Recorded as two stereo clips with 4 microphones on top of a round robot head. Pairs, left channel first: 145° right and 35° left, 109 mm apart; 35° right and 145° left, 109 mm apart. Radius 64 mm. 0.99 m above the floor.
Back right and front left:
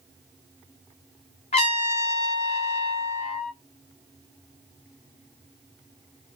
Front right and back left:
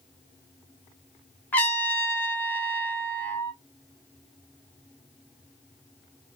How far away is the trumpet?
About 1.0 m.